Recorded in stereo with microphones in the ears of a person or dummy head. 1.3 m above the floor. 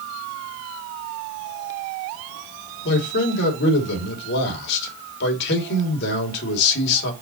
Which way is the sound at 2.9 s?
60° left (ahead or behind).